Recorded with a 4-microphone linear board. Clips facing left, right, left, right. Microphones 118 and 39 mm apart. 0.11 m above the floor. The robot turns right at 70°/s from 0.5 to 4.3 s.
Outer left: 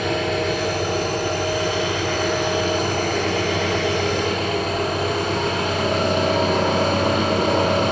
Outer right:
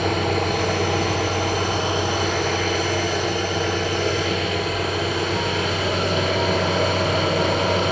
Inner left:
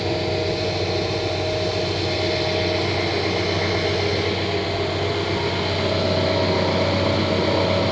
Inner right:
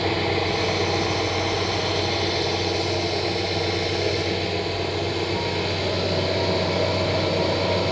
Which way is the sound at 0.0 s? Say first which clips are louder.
Even, even; 125° right.